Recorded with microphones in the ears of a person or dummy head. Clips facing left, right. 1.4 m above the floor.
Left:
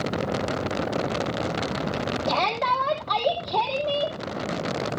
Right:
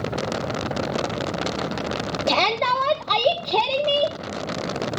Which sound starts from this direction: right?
A shout, at 2.3 s.